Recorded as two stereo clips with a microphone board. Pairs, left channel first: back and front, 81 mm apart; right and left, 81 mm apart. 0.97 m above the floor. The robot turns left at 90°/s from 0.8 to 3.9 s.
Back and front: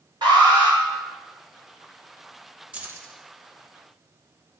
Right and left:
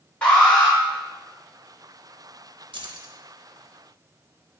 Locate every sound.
0.2 s an alarm: 20° right, 3 m
2.7 s keys jangling: 80° left, 0.8 m; by 3.1 s 40° left, 0.8 m